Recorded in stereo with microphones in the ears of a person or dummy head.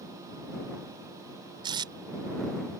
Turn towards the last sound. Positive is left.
turn(degrees=-25)  # may be behind; listen again after turning